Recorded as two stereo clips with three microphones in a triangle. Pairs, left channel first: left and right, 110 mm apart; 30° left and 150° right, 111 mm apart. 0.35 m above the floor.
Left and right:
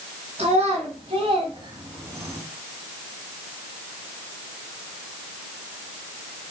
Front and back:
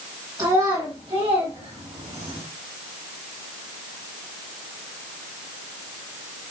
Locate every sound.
0.4 s a child speaking: 100° right, 2.5 m; by 2.4 s 160° right, 2.5 m